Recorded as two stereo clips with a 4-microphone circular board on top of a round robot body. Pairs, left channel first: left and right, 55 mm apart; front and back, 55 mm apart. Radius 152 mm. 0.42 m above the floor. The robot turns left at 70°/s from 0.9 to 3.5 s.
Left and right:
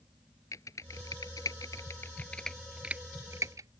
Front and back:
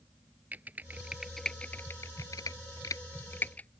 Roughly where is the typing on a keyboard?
Behind left.